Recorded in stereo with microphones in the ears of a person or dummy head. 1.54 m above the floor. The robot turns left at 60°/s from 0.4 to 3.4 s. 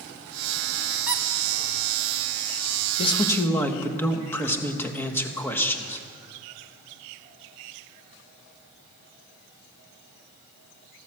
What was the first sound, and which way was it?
A squeak, 5° right (ahead or behind).